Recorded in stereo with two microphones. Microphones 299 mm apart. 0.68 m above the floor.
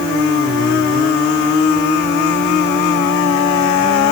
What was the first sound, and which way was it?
Only background noise.